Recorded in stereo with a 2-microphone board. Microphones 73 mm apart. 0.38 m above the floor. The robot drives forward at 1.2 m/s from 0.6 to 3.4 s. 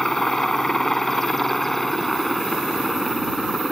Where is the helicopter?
5° left (ahead or behind); by 3.7 s centre (ahead or behind).